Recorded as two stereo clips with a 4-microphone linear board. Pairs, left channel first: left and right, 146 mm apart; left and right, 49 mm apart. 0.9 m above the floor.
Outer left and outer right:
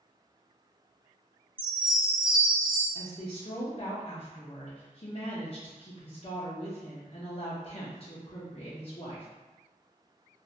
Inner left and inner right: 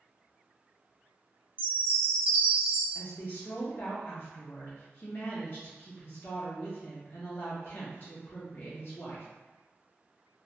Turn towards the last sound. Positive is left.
turn(degrees=45)  # may be behind; listen again after turning